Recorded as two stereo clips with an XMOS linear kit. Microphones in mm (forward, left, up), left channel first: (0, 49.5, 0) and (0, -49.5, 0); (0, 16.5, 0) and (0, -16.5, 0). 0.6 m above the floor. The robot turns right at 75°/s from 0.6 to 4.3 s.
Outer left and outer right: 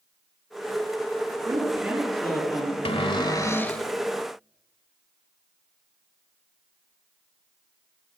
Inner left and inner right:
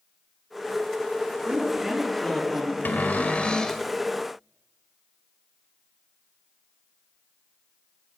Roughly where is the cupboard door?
Left.